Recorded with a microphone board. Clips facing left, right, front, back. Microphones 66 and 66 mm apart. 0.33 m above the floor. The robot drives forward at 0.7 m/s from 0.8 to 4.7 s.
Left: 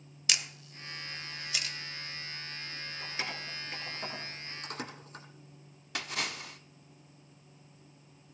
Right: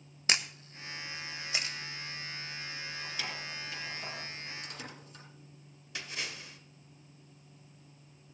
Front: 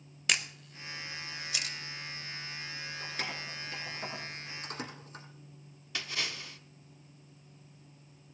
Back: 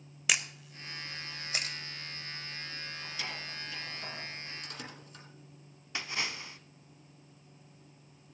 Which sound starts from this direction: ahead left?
Keys jangling, at 3.0 s.